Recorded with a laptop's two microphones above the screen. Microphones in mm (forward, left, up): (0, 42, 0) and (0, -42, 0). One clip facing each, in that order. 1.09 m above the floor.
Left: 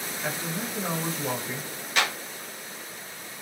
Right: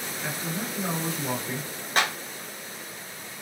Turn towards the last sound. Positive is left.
turn(degrees=-40)  # may be behind; listen again after turning